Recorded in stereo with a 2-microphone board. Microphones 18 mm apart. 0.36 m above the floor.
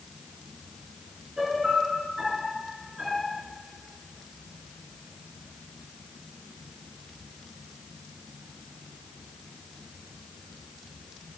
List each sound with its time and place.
1.4 s a piano: 35° right (ahead or behind), 4.5 m